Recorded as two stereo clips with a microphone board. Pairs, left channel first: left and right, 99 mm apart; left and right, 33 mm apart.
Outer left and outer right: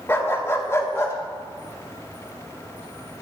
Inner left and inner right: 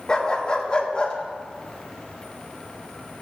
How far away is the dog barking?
About 0.8 m.